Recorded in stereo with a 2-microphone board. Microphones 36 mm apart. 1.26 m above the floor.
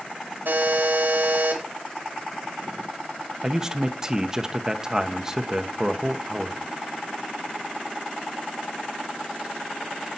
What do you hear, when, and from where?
0.5 s a buzzer: 75° right (ahead or behind), 4 m
3.4 s a man speaking: 20° right (ahead or behind), 1.1 m